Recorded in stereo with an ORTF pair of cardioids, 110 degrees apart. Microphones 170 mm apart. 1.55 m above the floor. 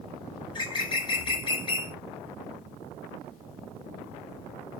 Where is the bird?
25° left, 0.8 m.